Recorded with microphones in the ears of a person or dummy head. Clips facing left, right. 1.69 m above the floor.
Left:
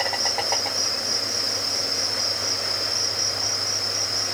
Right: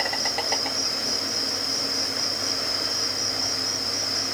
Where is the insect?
20° right (ahead or behind), 2.5 m.